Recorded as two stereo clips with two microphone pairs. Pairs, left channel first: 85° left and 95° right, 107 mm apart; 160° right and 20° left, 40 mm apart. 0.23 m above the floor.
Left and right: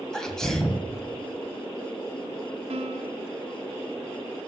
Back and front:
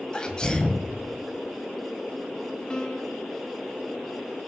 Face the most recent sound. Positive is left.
turn(degrees=-90)